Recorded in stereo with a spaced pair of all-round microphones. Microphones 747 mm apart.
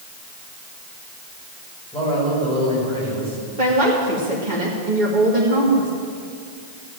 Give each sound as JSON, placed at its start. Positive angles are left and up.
{"t": 1.9, "sound": "a man speaking", "side_deg": 5, "distance_m": 6.5}
{"t": 3.6, "sound": "a woman speaking", "side_deg": -85, "distance_m": 2.0}